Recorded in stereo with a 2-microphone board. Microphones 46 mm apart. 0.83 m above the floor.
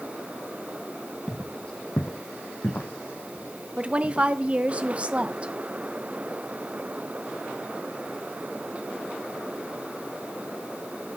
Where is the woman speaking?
30° right (ahead or behind), 0.7 m.